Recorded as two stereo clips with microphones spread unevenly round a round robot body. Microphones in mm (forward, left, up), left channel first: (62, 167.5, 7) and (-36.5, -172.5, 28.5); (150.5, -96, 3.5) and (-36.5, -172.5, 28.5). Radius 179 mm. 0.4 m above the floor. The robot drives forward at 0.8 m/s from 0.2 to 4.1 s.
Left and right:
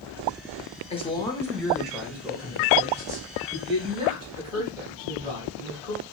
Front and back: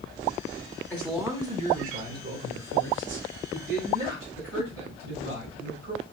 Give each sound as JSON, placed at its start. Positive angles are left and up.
{"t": 0.9, "sound": "a man speaking", "azimuth_deg": 60, "distance_m": 0.8}